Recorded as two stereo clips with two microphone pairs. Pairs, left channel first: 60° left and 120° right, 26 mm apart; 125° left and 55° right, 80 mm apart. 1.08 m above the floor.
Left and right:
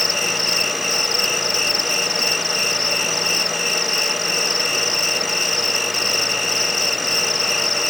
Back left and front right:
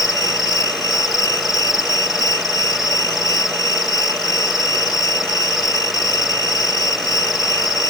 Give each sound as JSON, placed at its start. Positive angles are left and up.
{"t": 0.0, "sound": "an insect", "azimuth_deg": 145}